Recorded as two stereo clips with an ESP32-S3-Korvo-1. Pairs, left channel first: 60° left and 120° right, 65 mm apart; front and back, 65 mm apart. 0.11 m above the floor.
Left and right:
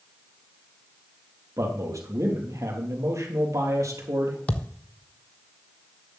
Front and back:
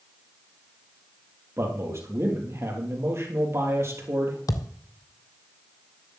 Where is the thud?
5° right, 1.0 m.